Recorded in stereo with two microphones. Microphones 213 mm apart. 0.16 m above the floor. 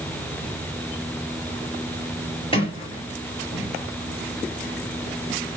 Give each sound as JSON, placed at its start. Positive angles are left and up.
{"t": 2.5, "sound": "a sliding door", "side_deg": 25, "distance_m": 3.0}